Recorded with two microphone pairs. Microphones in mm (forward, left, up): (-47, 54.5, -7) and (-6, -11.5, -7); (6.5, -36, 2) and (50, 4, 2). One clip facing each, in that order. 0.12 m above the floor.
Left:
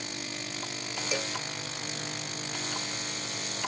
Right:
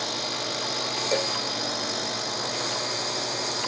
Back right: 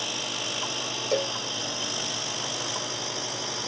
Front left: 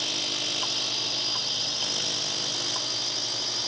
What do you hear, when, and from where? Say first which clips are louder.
0.0 s a drone: right 8 dB, back right 1 dB; 60° right; by 3.7 s 65° right
1.1 s a cowbell: right 7 dB, back right 10 dB; 115° right